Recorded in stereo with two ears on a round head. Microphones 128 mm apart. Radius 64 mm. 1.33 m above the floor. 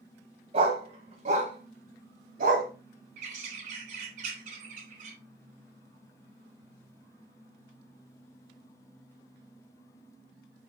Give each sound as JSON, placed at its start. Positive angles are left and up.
{"t": 0.5, "sound": "a dog barking", "side_deg": -45, "distance_m": 3.0}
{"t": 3.2, "sound": "a bird", "side_deg": -60, "distance_m": 3.0}